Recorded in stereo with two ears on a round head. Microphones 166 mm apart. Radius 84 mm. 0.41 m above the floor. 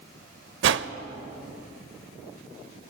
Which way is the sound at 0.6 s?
70° right (ahead or behind).